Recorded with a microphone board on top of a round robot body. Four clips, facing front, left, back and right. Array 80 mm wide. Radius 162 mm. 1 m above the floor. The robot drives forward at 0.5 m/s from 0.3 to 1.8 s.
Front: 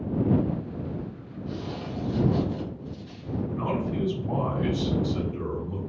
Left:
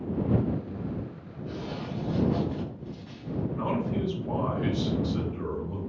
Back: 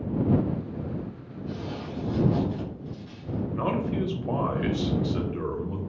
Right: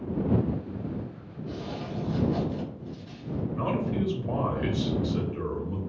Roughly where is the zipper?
Left.